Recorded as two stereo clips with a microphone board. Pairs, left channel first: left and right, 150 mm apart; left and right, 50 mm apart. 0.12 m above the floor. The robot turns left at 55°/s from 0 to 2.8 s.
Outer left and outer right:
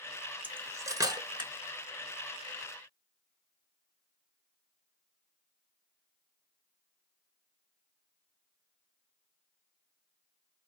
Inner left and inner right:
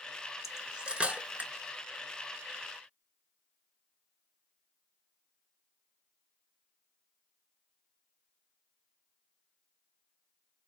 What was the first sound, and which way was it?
Cutlery clinking, 10° right (ahead or behind).